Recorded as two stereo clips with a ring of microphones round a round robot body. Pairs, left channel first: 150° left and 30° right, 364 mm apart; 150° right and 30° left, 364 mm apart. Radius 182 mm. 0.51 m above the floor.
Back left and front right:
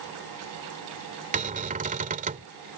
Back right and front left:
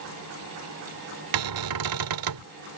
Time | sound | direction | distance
1.3 | a cupboard door | 35° left | ?